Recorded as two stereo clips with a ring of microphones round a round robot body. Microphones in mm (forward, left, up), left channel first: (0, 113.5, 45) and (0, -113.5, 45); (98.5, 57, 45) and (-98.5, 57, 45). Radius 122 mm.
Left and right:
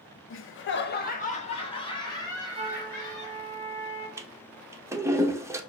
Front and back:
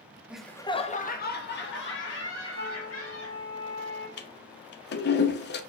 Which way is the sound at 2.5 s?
25° right.